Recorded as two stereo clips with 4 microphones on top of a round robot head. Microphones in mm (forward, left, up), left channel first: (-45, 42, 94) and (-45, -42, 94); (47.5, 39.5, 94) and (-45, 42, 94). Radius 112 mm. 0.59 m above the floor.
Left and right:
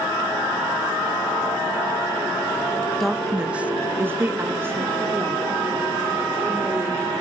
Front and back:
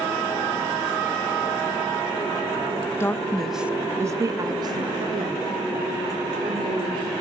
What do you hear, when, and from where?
3.0 s a woman speaking: 5° left, 0.8 m; by 7.1 s 155° right, 3 m